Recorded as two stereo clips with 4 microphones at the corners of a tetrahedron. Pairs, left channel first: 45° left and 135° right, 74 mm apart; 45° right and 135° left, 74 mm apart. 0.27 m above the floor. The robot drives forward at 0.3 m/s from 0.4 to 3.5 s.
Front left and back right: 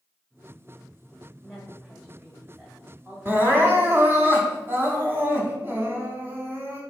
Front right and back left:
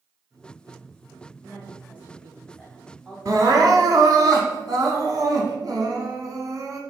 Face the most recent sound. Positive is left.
turn(degrees=165)